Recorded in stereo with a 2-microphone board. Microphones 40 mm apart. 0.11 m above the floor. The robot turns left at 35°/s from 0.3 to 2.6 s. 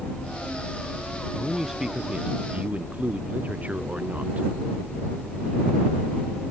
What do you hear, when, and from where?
1.4 s a man speaking: 5° left; by 4.5 s 40° right